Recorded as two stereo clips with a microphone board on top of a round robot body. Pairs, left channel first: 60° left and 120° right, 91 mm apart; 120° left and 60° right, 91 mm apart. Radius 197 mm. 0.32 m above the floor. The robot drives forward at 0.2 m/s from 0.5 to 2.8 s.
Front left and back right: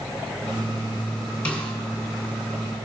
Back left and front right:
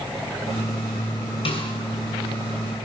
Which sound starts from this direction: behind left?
A snare drum, at 1.4 s.